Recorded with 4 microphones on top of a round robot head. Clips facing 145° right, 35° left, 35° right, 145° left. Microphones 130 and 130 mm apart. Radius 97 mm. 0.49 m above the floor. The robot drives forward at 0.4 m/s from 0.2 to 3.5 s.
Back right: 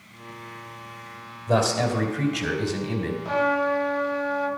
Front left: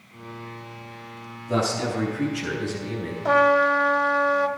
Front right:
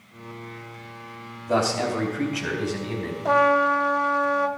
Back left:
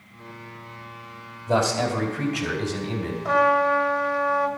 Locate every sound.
1.5 s a man speaking: 150° right, 3 m; by 3.1 s 155° right, 3.5 m
3.2 s a trumpet: 30° left, 1.5 m